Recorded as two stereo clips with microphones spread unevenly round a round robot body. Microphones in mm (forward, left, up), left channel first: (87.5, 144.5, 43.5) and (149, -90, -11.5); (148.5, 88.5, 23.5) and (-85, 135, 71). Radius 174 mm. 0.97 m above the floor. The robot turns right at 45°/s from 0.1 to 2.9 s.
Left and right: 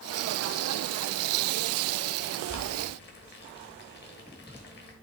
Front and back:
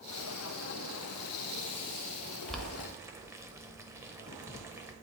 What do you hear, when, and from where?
2.5 s boiling: 85° left, 1.0 m; by 4.9 s 100° left, 1.0 m